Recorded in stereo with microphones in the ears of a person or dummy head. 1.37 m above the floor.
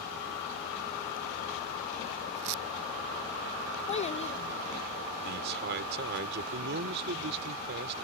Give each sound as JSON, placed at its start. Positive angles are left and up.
{"t": 3.9, "sound": "a child speaking", "side_deg": 35}
{"t": 5.2, "sound": "a man speaking", "side_deg": -60}